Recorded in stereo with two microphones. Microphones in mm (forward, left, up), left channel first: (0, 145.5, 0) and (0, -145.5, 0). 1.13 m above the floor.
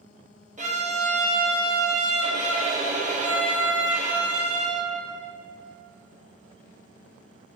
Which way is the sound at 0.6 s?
25° right (ahead or behind).